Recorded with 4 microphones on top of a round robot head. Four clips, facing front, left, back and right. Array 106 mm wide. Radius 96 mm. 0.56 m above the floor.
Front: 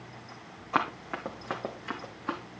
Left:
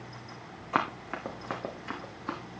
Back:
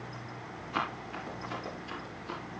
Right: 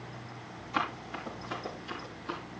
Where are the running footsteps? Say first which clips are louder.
Left 3 dB, front 5 dB; 50° left, 3 m; by 2.4 s 30° left, 3.5 m.